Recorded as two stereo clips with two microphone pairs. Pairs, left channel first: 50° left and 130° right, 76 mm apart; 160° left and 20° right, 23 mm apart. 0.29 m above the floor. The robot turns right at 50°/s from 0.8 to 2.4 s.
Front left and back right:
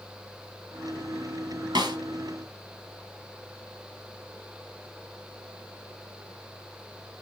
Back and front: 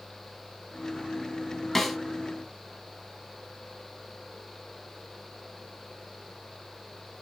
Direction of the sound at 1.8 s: 110° right.